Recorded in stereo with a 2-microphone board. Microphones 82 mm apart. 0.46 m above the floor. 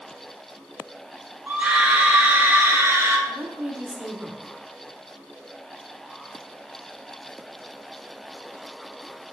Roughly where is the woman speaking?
Right.